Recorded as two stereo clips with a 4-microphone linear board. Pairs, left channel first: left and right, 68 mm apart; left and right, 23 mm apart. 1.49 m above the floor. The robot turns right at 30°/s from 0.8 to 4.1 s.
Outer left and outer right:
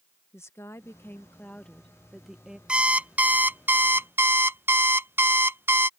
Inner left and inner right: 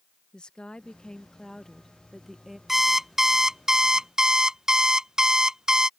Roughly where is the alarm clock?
Behind right.